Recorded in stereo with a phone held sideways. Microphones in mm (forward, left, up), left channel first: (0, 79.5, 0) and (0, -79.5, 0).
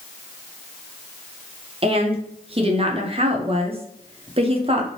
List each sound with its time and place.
1.8 s a woman speaking: 40° right (ahead or behind), 0.6 m